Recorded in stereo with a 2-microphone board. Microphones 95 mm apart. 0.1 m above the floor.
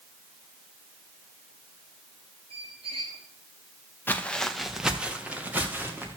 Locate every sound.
2.5 s a squeak: 80° right, 2.5 m
4.1 s footsteps: 20° left (ahead or behind), 0.9 m; by 6.2 s 20° right (ahead or behind), 2.5 m